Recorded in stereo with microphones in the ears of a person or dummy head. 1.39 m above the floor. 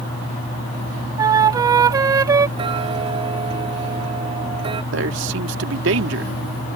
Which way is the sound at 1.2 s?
20° right (ahead or behind).